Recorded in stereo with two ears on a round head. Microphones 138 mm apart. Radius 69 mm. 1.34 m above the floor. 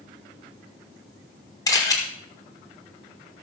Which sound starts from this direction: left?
A camera shutter, at 1.7 s.